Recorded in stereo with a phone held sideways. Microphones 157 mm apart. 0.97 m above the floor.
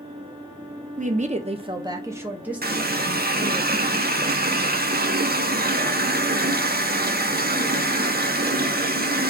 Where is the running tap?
80° right, 0.5 m.